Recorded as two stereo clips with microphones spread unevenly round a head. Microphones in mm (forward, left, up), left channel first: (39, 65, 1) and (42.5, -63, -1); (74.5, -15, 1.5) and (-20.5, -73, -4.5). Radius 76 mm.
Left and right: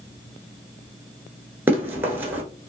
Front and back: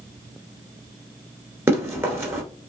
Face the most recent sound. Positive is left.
turn(degrees=-135)